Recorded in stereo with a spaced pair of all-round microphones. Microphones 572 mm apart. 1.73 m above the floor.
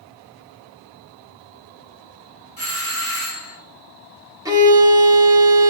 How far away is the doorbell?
About 2.5 m.